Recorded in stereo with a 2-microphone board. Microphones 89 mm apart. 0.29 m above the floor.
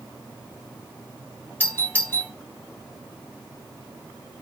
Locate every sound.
1.6 s a doorbell: 20° left (ahead or behind), 2.5 m